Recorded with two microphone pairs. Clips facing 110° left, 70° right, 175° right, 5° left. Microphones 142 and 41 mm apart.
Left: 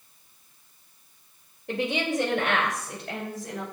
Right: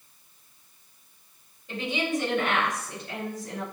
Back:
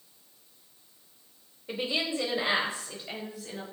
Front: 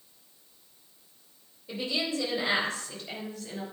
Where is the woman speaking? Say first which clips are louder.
Left 2 dB, back 1 dB; 130° left, 2.5 m; by 3.6 s 105° left, 4 m.